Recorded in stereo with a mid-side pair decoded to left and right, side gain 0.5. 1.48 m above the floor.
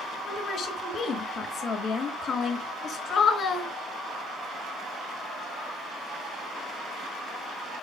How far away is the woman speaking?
About 3 m.